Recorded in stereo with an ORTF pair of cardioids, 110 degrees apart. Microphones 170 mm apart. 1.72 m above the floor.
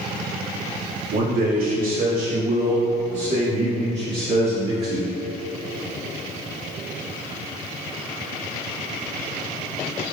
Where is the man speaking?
65° right, 2 m; by 5.1 s 40° right, 6 m.